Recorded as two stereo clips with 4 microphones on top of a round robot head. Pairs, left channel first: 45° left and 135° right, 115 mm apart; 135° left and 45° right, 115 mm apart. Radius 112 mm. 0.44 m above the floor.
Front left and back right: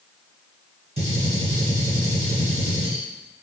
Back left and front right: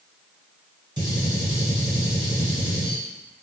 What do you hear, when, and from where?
1.0 s a gunshot: 100° right, 1.4 m